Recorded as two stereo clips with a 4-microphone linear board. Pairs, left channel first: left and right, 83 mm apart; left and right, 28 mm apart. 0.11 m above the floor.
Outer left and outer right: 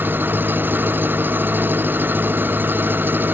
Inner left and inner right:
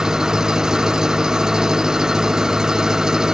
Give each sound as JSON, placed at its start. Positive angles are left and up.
{"t": 0.0, "sound": "an engine running", "side_deg": -25}